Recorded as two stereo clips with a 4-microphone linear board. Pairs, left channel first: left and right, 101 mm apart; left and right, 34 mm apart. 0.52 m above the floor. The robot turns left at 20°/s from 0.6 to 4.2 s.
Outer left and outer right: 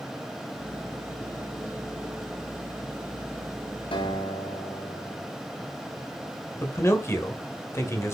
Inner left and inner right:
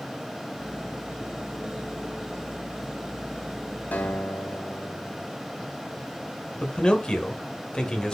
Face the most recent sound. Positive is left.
turn(degrees=30)  # may be behind; listen again after turning